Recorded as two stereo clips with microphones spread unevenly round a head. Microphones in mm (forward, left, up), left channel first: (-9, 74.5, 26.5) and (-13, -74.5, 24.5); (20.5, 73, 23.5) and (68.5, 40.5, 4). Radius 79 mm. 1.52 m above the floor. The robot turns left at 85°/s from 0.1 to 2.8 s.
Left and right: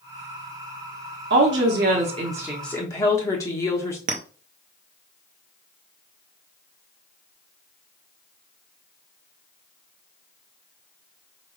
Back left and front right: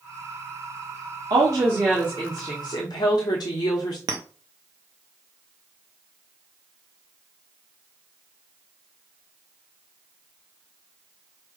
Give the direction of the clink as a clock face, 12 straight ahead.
2 o'clock.